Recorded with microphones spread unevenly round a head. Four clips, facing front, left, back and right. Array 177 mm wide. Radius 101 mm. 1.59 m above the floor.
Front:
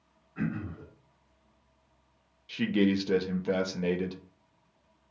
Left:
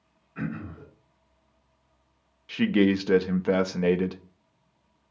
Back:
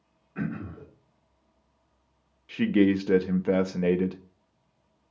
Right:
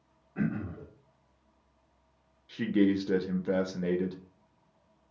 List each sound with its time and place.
0.3 s throat clearing: 145° right, 2.5 m
2.5 s a man speaking: 160° left, 0.6 m